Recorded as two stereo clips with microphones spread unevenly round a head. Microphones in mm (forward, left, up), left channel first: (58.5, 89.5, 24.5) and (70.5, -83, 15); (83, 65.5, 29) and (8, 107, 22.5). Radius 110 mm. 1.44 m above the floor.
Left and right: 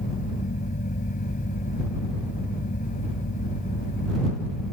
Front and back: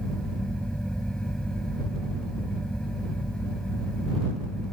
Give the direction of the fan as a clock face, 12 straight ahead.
10 o'clock.